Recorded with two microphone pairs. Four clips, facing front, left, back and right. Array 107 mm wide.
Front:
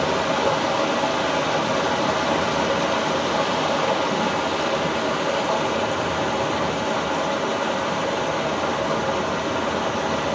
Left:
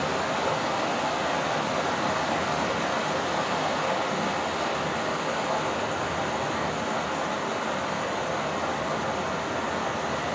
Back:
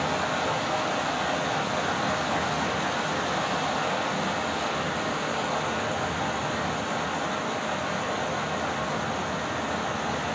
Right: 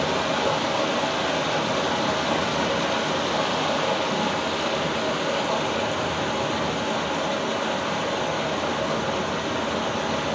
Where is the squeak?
I don't hear a squeak.